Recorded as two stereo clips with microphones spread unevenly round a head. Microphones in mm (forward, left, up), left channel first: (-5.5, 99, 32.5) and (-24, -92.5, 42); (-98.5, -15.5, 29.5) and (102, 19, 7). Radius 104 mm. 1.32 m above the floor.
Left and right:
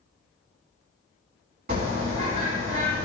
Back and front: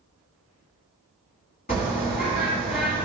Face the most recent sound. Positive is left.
turn(degrees=-130)